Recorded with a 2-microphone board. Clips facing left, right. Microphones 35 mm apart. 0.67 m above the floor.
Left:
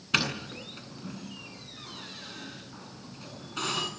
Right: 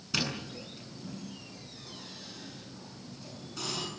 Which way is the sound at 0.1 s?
55° left (ahead or behind).